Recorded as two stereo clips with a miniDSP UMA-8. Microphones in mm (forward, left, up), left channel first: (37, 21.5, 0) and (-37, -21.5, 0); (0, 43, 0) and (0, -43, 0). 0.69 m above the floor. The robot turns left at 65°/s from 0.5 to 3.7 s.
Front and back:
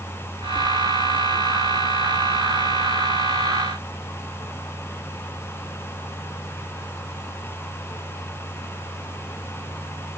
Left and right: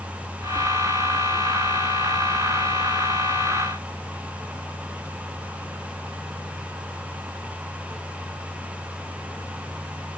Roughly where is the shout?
I don't hear a shout.